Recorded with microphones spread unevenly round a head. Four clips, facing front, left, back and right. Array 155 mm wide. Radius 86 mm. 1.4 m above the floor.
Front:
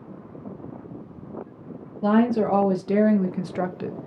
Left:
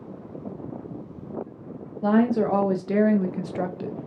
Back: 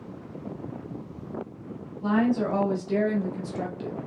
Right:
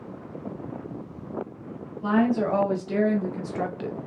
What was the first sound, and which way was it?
A woman speaking, 25° left.